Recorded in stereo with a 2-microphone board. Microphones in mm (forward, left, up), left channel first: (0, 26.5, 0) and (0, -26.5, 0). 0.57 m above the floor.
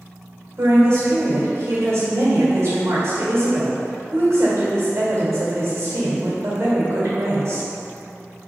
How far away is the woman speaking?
About 1.9 m.